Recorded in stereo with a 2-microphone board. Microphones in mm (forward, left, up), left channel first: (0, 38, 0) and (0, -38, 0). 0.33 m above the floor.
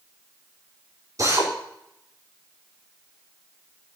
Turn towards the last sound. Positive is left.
turn(degrees=-45)  # may be behind; listen again after turning